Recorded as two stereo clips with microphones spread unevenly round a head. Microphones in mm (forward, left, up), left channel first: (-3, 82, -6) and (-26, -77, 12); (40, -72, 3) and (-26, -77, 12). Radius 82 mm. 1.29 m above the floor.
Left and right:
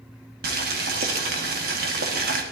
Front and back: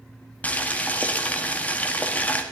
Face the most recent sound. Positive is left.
turn(degrees=-65)